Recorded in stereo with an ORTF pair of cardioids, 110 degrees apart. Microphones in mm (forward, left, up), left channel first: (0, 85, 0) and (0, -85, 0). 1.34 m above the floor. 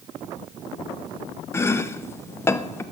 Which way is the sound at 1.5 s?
15° left.